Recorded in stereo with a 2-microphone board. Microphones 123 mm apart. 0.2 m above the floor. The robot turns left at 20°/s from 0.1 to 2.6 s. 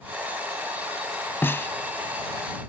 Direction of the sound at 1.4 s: 20° left (ahead or behind).